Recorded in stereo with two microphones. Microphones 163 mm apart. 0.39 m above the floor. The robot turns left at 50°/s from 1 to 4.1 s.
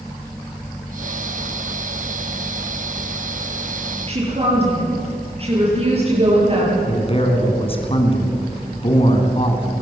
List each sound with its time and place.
4.1 s a woman speaking: 35° right (ahead or behind), 9 m; by 6.8 s 40° right (ahead or behind), 9 m
6.9 s a man speaking: 35° left (ahead or behind), 3.5 m